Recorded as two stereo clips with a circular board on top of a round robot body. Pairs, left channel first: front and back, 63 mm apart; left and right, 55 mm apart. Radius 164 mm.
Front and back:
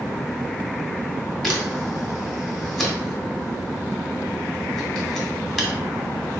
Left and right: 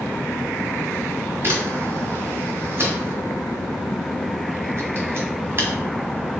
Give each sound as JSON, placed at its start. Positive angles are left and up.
{"t": 1.4, "sound": "a camera shutter", "azimuth_deg": -85, "distance_m": 1.6}